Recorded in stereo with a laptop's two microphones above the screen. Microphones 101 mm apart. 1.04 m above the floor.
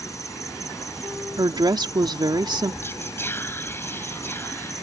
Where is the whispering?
20° left (ahead or behind).